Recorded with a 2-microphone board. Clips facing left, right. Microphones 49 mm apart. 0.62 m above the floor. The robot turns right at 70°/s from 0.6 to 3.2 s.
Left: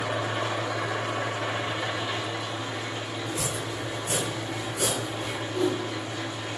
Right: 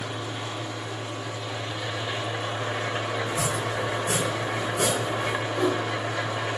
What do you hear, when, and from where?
0.0 s an engine running: 80° left, 1.2 m; by 6.6 s 100° right, 1.2 m
3.3 s chopping: 70° right (ahead or behind), 3 m
5.5 s a whoosh: 20° left (ahead or behind), 4 m